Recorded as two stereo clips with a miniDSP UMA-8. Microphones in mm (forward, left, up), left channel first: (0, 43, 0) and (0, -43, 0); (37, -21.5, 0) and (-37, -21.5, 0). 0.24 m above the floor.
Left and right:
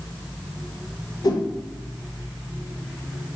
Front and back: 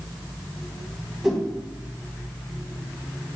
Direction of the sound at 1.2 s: 95° left.